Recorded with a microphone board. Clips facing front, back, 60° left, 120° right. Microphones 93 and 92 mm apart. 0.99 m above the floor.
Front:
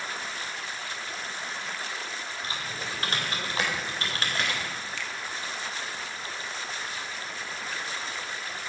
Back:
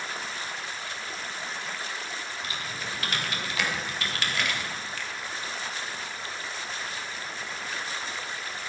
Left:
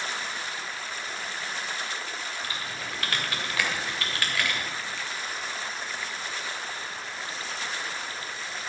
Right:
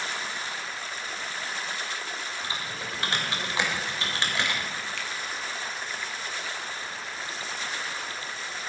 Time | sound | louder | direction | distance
2.4 | typing on a keyboard | even, right 1 dB | 55° right | 3 m
5.0 | a finger snap | even, even | 140° right | 1.6 m